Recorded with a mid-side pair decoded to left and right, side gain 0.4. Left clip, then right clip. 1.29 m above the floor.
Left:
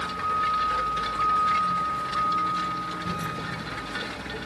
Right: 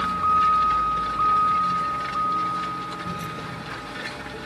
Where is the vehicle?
55° right; by 4.5 s 20° left.